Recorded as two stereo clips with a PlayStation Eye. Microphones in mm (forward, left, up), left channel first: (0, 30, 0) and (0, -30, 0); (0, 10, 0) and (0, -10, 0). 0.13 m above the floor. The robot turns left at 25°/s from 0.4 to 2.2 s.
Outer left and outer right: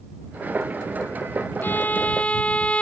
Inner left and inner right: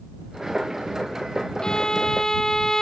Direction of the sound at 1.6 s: 35° left (ahead or behind).